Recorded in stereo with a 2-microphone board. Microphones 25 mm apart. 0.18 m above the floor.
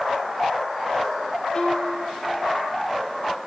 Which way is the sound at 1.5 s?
15° left (ahead or behind).